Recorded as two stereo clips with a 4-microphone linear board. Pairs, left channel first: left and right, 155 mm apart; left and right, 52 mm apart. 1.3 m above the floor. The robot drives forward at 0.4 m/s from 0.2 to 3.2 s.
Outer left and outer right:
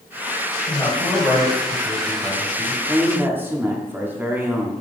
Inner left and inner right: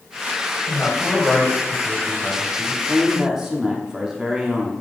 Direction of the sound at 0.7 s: 30° left (ahead or behind).